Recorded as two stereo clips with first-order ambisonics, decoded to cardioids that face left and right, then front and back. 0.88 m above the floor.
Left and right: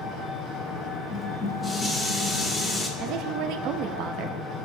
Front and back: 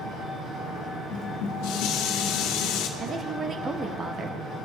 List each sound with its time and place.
0.0 s an engine running: 130° left, 5 m
1.1 s dishes clattering: 15° left, 1.5 m
3.0 s a woman speaking: 115° right, 0.7 m